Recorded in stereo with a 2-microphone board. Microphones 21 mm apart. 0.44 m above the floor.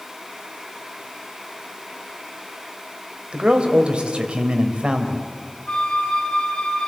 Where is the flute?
50° left (ahead or behind), 2 m.